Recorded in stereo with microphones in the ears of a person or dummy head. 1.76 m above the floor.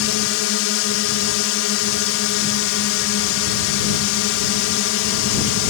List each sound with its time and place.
0.0 s a drone: 70° left (ahead or behind)